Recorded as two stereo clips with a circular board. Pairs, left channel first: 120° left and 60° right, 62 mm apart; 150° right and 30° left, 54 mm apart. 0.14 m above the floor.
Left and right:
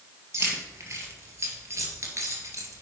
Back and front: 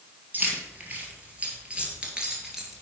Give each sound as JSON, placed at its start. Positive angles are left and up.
{"t": 0.3, "sound": "keys jangling", "azimuth_deg": -25, "distance_m": 2.5}